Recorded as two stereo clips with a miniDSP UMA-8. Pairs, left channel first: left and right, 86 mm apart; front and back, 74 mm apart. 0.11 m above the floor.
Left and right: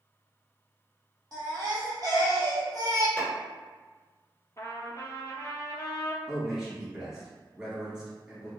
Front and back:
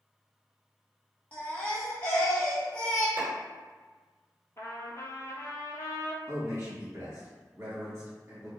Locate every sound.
1.3 s a baby crying: 65° right, 1.0 m
3.2 s a clap: 145° left, 1.6 m
4.6 s a trumpet: 45° left, 0.6 m
6.3 s a man speaking: 170° right, 1.5 m